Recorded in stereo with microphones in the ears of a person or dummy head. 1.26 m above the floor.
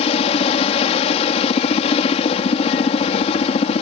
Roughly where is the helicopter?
Left.